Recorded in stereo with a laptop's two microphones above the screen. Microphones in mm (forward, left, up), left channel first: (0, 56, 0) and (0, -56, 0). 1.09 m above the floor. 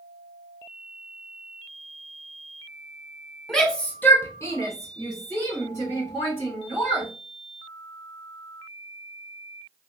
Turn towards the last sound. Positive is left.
turn(degrees=25)  # may be behind; listen again after turning